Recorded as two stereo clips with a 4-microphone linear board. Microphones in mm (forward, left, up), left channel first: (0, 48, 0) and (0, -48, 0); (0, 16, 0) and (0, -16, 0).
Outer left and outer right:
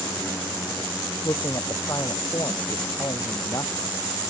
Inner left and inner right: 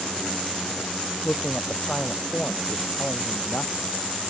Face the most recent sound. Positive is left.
turn(degrees=40)  # may be behind; listen again after turning